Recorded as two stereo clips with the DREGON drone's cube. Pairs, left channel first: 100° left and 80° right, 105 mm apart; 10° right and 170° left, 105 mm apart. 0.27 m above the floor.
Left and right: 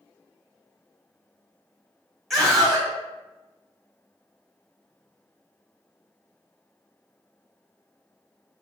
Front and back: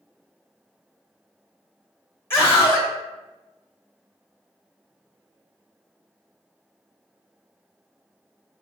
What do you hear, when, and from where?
2.3 s a scream: 20° left, 1.2 m